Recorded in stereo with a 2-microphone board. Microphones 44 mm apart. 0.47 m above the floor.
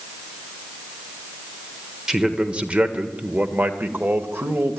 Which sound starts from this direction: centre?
A man speaking, at 2.1 s.